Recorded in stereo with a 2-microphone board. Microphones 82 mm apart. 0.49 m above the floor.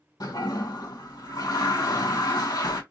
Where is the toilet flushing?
55° left (ahead or behind), 2.0 m.